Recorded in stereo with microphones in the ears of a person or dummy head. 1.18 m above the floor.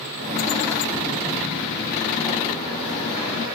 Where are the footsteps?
20° right (ahead or behind), 2 m.